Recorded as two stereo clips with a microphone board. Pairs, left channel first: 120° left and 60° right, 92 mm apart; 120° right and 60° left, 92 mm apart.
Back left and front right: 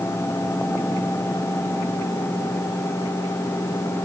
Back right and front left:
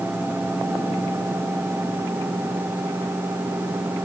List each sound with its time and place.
Only background noise.